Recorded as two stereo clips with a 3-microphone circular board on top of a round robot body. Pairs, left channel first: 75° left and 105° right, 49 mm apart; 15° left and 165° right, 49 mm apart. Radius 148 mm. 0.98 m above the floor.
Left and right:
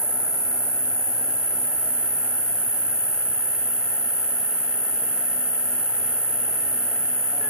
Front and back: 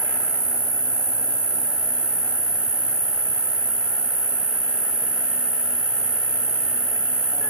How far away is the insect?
About 1.5 m.